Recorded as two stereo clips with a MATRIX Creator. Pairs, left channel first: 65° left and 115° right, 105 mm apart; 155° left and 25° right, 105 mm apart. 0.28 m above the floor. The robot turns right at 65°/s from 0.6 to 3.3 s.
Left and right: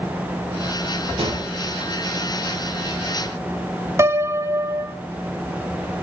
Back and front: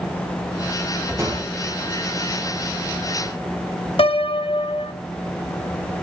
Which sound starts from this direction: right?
A gunshot, at 1.2 s.